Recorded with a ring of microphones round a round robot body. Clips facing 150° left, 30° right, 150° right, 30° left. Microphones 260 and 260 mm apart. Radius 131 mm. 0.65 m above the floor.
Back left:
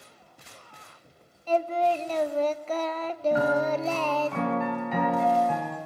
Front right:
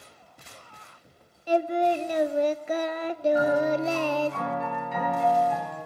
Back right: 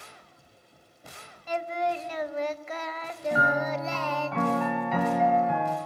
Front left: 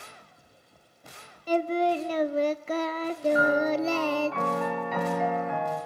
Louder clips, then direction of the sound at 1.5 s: Front right 2 dB, front left 6 dB; 35° left.